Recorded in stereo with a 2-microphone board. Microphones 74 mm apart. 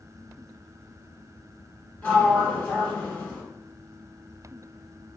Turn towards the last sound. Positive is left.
turn(degrees=20)  # may be behind; listen again after turning